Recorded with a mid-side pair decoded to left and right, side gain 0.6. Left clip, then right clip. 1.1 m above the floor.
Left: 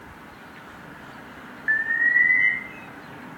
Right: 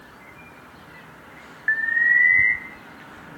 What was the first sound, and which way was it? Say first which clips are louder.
An alarm: right 2 dB; 20° right.